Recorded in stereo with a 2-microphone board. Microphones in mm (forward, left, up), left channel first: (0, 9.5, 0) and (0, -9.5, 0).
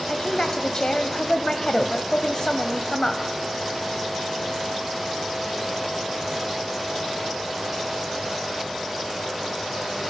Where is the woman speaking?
45° left (ahead or behind), 1.3 m.